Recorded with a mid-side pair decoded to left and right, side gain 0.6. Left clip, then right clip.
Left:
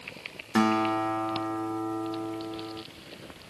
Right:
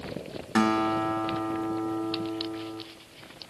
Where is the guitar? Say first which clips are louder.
Even; straight ahead, 0.8 m.